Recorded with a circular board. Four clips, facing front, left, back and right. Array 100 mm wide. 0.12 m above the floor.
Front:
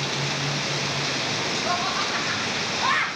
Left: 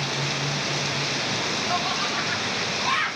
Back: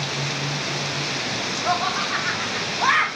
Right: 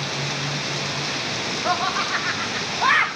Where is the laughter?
125° right, 8.5 m; by 3.1 s 130° right, 8.5 m.